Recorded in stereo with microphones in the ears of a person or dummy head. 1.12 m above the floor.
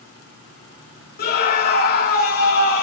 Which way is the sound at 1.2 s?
50° left (ahead or behind).